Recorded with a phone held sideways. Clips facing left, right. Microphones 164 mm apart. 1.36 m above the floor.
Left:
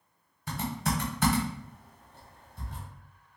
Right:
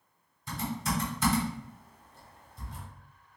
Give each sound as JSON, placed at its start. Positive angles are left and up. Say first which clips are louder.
{"t": 0.5, "sound": "typing on a keyboard", "louder": "left 1 dB", "side_deg": 65, "distance_m": 0.9}